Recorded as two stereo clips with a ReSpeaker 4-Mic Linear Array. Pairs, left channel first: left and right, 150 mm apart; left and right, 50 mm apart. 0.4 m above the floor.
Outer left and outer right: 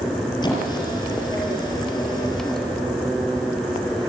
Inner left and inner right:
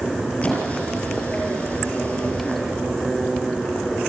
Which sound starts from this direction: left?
A squeak, at 0.4 s.